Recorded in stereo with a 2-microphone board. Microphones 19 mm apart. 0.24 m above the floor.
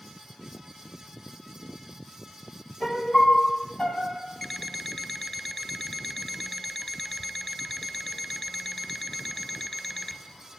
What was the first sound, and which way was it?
A piano, 40° left (ahead or behind).